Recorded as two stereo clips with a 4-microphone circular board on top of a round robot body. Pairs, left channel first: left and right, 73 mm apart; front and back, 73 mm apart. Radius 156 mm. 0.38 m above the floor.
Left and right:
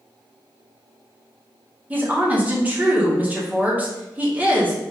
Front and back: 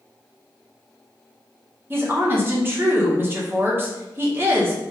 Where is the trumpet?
No trumpet in this recording.